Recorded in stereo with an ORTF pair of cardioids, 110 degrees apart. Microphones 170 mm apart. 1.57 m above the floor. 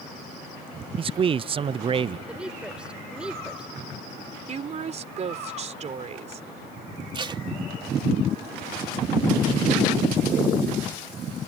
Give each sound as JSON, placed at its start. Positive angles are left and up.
{"t": 1.0, "sound": "a man speaking", "azimuth_deg": -30}
{"t": 2.3, "sound": "a woman speaking", "azimuth_deg": -5}
{"t": 4.5, "sound": "a woman speaking", "azimuth_deg": -40}
{"t": 7.1, "sound": "tape being pulled", "azimuth_deg": -30}